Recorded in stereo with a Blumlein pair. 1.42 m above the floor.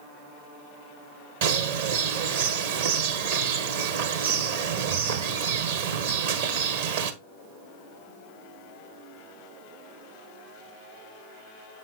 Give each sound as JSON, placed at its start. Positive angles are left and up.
{"t": 1.4, "sound": "a bird", "azimuth_deg": -55, "distance_m": 1.3}